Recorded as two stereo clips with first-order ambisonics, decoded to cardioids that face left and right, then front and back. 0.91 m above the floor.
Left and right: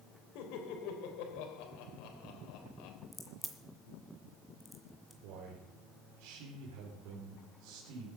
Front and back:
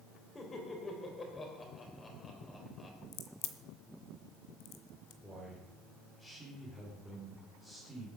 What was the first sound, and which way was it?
Laughter, 70° left.